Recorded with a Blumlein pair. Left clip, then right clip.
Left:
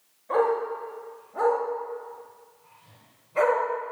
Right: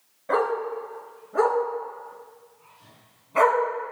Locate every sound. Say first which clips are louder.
0.3 s a dog barking: even; 55° right, 4 m; by 3.6 s 25° right, 2.5 m